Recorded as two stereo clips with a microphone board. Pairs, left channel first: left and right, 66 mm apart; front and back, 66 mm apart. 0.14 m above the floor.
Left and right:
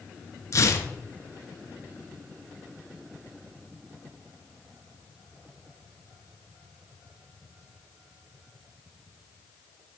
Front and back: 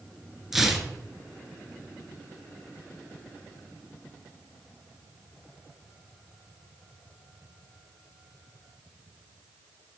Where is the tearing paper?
95° left, 0.8 m.